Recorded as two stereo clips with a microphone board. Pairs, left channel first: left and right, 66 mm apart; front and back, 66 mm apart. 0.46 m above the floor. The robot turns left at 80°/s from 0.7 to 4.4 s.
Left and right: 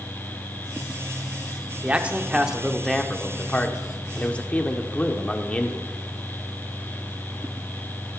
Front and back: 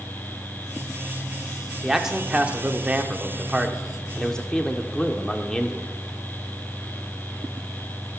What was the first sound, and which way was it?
A man speaking, 100° right.